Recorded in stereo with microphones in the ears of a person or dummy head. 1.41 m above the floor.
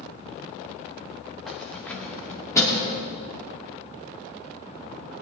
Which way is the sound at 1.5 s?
5° left (ahead or behind).